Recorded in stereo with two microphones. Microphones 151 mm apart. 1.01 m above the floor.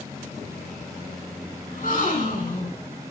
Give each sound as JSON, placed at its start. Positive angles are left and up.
{"t": 1.7, "sound": "a gasp", "side_deg": 65, "distance_m": 3.5}